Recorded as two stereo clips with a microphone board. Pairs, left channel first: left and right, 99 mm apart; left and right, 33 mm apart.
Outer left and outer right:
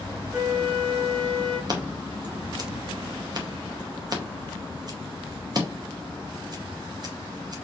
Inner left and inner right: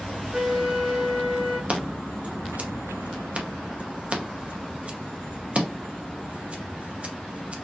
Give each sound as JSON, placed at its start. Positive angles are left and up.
{"t": 0.3, "sound": "a flute", "side_deg": -40, "distance_m": 3.0}
{"t": 1.7, "sound": "scissors", "side_deg": -45, "distance_m": 1.0}